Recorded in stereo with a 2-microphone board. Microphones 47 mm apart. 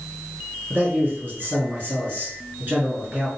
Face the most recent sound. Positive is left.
turn(degrees=-35)  # may be behind; listen again after turning